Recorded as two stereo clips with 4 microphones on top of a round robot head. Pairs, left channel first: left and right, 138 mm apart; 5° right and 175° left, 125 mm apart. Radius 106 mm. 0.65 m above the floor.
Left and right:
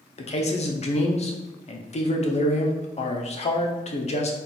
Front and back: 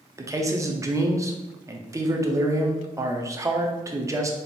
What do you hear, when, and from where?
0.2 s a man speaking: 115° left, 0.9 m